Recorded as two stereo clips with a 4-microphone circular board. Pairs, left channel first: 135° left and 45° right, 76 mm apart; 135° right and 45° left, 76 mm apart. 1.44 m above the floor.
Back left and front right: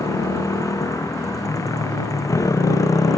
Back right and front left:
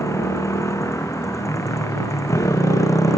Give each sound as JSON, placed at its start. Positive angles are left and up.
{"t": 0.0, "sound": "a motorcycle", "azimuth_deg": 175}